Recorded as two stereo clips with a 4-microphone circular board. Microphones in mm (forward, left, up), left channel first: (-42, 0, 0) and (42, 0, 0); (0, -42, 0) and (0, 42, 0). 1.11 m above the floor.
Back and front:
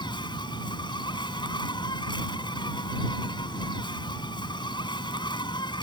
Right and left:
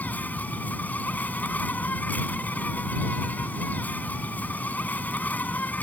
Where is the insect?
160° right.